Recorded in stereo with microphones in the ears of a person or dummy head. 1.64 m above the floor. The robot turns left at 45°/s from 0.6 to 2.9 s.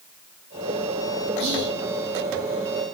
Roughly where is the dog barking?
No dog barking in this recording.